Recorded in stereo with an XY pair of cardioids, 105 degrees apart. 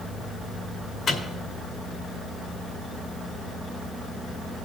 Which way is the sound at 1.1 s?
50° left.